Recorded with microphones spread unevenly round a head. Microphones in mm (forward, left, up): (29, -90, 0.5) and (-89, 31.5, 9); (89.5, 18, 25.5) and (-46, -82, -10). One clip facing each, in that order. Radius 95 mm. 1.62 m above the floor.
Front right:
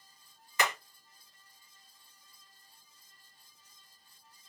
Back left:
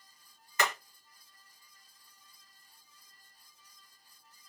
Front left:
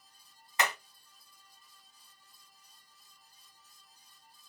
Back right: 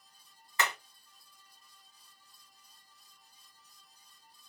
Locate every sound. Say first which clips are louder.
0.6 s hammering: even, front left 1 dB; 30° right, 3 m